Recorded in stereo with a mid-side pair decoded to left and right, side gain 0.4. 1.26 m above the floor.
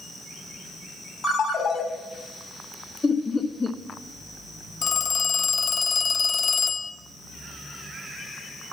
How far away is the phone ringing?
About 0.9 m.